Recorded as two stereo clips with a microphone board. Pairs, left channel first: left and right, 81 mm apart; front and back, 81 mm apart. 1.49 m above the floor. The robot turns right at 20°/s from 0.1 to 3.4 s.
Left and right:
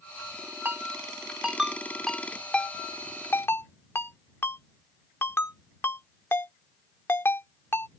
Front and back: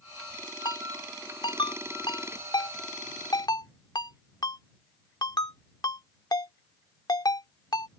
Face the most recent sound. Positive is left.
turn(degrees=30)